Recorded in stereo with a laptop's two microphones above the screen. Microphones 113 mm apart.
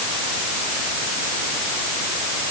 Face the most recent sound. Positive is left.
No sound to turn to.